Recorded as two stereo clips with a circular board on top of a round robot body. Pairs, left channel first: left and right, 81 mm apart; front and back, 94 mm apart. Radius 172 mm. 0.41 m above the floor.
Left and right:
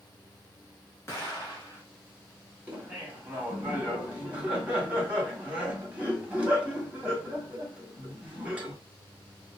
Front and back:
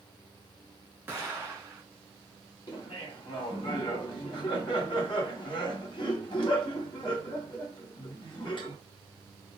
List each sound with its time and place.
1.1 s an explosion: 120° left, 1.7 m
2.7 s laughter: 15° right, 2.0 m